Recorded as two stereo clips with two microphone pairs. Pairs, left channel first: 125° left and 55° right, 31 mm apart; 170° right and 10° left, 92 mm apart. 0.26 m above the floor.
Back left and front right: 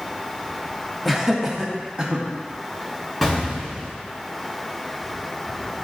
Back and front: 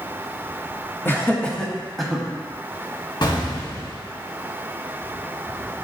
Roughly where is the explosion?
Behind right.